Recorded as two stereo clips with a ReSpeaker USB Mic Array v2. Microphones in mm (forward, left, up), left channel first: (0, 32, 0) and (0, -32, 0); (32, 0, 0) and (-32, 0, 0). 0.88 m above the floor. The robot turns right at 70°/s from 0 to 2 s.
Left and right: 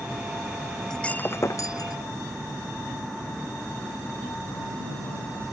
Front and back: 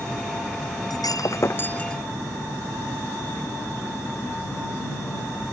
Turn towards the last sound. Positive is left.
turn(degrees=85)